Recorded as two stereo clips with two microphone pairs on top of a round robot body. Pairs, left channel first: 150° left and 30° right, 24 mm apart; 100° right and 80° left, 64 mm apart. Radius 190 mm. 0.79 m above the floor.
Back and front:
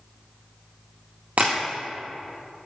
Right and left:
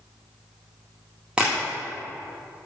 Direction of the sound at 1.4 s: Straight ahead.